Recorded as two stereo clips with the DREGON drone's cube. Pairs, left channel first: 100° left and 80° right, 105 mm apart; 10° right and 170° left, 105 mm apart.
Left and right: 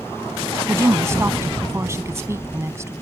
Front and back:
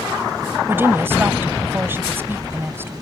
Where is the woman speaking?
130° right.